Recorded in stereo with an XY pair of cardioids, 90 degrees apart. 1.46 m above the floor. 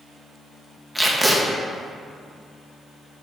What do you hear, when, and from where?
0.9 s tape being pulled: 15° right, 1.0 m